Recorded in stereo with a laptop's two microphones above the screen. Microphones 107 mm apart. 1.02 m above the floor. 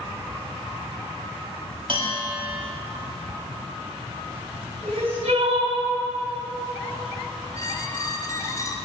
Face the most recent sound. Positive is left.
turn(degrees=30)  # may be behind; listen again after turning